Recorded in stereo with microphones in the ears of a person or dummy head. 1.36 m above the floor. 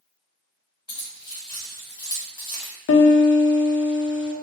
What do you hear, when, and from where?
0.9 s keys jangling: 25° left (ahead or behind), 1.7 m
2.9 s a piano: 70° left (ahead or behind), 1.0 m